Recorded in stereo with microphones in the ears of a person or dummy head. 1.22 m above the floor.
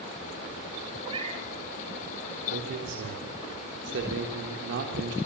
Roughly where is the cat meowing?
Right.